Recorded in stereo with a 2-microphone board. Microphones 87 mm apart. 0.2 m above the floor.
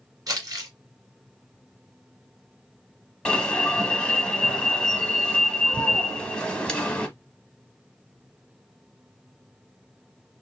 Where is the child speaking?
I don't hear a child speaking.